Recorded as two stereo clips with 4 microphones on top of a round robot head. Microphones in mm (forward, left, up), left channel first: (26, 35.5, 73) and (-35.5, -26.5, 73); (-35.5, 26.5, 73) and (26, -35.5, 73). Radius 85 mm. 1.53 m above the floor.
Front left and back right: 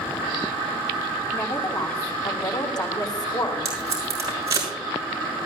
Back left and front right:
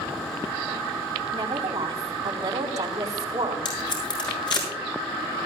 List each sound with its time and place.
1.3 s a woman speaking: 5° left, 4 m
3.6 s tape being pulled: 170° left, 6.5 m